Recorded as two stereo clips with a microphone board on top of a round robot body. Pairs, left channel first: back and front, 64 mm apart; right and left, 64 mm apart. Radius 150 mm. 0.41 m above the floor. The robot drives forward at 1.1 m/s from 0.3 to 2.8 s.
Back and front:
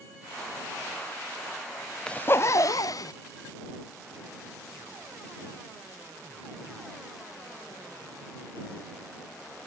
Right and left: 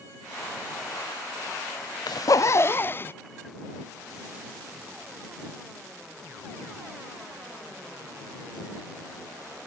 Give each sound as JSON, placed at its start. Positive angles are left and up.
{"t": 2.1, "sound": "a zipper", "azimuth_deg": -105}